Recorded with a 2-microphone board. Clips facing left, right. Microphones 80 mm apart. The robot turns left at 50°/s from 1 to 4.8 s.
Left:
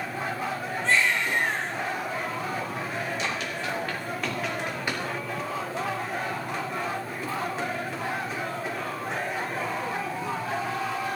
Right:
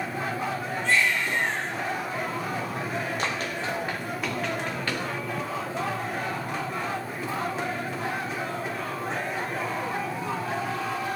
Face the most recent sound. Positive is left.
turn(degrees=15)  # may be behind; listen again after turning